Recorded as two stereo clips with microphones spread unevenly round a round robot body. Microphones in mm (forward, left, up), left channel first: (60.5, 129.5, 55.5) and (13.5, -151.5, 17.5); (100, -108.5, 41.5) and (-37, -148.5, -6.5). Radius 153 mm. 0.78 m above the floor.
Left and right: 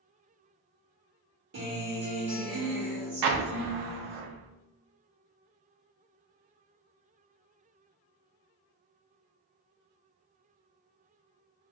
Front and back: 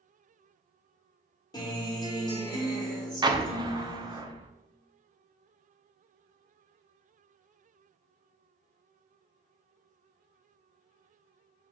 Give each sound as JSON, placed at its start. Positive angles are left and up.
{"t": 1.5, "sound": "a guitar", "azimuth_deg": -50, "distance_m": 1.3}
{"t": 3.2, "sound": "an explosion", "azimuth_deg": -100, "distance_m": 0.5}